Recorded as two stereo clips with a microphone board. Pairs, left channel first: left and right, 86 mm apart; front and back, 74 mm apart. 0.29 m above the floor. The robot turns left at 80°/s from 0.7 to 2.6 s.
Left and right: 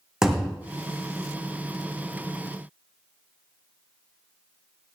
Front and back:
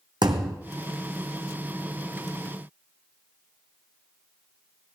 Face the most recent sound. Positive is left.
turn(degrees=30)